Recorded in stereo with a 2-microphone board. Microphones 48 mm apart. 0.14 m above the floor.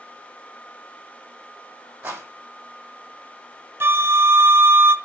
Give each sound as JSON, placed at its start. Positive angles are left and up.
{"t": 2.0, "sound": "a rattle", "side_deg": -35, "distance_m": 5.5}
{"t": 3.8, "sound": "a flute", "side_deg": -55, "distance_m": 0.7}